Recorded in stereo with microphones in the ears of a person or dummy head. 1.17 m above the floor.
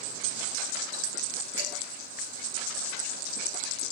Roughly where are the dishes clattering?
Right.